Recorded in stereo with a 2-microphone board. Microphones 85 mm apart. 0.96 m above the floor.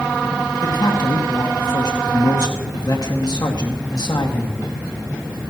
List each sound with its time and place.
0.6 s a man speaking: 50° left (ahead or behind), 1.8 m